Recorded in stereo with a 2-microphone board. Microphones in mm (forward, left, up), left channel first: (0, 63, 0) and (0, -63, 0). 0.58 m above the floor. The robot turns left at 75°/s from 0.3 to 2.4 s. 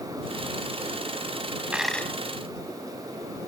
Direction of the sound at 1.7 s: 170° right.